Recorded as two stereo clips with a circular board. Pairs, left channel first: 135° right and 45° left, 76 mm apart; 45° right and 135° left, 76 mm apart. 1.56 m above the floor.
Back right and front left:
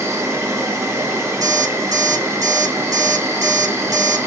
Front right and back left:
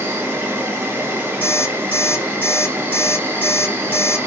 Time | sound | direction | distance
0.0 | an insect | 85° left | 0.9 m
1.4 | an alarm clock | 15° left | 2.5 m